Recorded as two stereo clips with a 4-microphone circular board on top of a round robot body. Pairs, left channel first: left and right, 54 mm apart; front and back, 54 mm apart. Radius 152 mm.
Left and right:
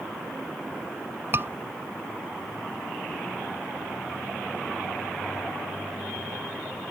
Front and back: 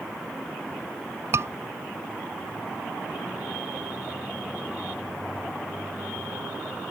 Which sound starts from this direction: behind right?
A scream, at 1.3 s.